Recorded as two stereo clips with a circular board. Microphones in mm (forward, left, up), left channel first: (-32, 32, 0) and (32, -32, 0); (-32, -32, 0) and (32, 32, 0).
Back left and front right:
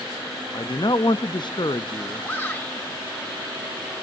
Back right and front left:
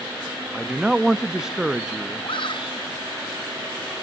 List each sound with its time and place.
0.5 s a man speaking: 125° left, 0.8 m
2.2 s a shout: 160° right, 5.5 m